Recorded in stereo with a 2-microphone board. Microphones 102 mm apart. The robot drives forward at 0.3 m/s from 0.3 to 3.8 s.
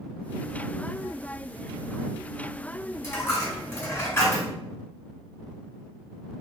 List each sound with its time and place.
3.0 s a dropped coin: 25° left (ahead or behind), 1.7 m